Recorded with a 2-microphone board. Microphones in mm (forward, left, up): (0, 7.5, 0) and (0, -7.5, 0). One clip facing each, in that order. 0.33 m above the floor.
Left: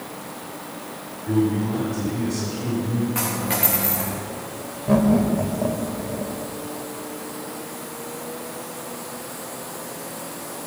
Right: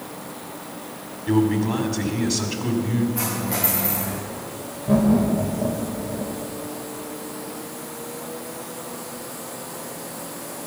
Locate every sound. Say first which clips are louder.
1.3 s a man speaking: right 2 dB; 50° right (ahead or behind), 2.5 m
3.1 s a dropped coin: left 1 dB; 70° left (ahead or behind), 6.5 m
4.9 s laughter: even; 25° left (ahead or behind), 1.6 m